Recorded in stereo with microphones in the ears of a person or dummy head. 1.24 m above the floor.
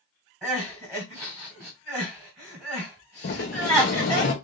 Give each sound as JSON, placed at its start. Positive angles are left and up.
{"t": 0.4, "sound": "crying", "side_deg": -10, "distance_m": 1.7}
{"t": 3.2, "sound": "a sliding door", "side_deg": 40, "distance_m": 0.7}